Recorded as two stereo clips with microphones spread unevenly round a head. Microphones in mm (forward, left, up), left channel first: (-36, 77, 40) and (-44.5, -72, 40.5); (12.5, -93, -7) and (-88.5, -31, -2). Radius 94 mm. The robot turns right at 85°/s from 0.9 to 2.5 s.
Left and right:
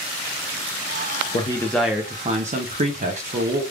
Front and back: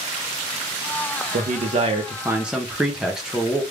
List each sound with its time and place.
1.3 s a man speaking: 135° left, 0.8 m; by 3.6 s 125° right, 0.8 m